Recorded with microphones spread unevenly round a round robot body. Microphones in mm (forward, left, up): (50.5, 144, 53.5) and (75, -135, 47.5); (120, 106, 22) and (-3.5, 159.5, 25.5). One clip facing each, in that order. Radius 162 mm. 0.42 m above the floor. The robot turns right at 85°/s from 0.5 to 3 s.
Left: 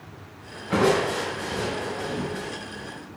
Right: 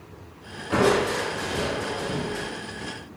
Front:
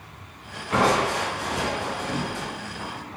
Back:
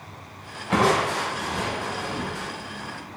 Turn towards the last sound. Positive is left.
turn(degrees=10)